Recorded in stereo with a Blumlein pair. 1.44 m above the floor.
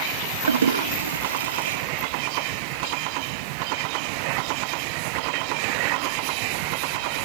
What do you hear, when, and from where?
0.5 s a toilet flushing: 70° right, 0.6 m